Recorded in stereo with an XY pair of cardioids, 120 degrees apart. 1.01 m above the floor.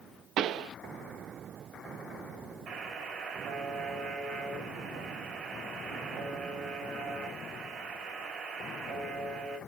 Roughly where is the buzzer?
Ahead right.